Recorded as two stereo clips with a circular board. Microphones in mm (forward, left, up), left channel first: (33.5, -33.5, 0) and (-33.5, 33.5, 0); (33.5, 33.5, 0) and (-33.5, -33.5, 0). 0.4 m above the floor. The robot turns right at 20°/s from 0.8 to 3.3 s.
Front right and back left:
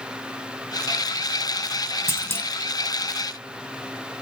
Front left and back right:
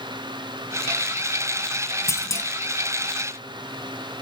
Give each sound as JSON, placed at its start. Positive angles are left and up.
{"t": 2.1, "sound": "a clunk", "azimuth_deg": 5, "distance_m": 1.2}